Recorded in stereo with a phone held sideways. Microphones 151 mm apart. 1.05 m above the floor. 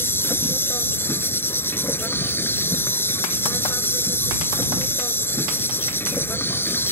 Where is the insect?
15° left (ahead or behind).